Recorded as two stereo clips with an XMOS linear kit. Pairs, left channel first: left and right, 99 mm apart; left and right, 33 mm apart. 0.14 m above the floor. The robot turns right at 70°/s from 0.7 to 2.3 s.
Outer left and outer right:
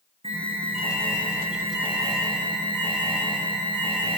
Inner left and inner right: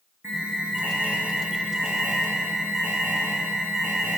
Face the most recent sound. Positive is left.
turn(degrees=15)